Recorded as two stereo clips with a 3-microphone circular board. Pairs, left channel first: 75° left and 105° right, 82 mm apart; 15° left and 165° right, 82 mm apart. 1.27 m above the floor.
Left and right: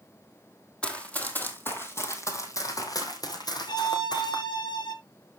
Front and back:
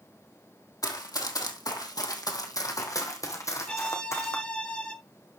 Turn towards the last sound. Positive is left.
turn(degrees=90)